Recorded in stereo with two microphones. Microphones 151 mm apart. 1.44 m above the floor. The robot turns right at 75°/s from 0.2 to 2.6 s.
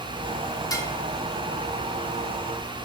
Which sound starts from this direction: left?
Dishes clattering, at 0.7 s.